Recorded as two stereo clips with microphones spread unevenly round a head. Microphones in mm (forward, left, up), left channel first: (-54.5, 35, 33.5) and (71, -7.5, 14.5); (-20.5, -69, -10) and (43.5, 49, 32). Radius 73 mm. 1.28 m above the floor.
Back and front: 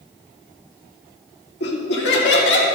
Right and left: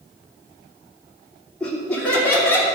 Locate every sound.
1.6 s laughter: 155° left, 2.5 m; by 2.6 s 165° left, 3 m